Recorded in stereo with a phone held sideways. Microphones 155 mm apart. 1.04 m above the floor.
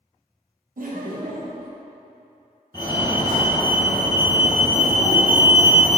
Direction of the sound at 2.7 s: 30° left (ahead or behind).